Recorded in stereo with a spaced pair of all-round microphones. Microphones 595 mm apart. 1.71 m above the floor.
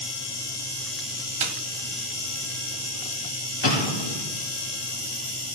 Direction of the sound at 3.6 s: 45° left (ahead or behind).